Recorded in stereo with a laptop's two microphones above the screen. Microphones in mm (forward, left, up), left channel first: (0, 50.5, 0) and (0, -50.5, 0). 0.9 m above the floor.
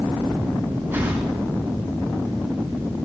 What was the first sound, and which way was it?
A whoosh, 20° right (ahead or behind).